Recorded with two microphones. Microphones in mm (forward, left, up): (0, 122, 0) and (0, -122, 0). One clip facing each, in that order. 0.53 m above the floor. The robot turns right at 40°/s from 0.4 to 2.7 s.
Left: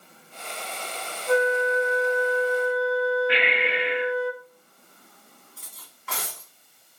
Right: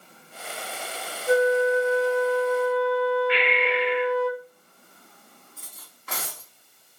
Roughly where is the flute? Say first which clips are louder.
Right 3 dB; behind.